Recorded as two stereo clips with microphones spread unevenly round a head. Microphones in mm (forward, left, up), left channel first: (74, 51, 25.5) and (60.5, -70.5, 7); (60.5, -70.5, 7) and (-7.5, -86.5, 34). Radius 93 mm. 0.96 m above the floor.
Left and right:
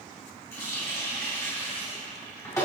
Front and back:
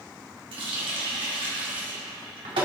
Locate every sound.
0.5 s a running tap: 160° left, 1.7 m